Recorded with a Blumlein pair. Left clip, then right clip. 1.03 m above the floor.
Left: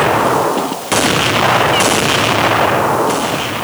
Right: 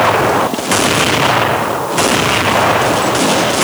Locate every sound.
Only background noise.